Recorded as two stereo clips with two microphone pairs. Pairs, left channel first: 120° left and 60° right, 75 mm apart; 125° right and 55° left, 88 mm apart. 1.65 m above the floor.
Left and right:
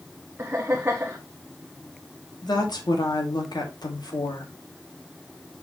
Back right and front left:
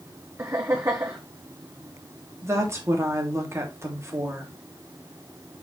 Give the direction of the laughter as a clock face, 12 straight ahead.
12 o'clock.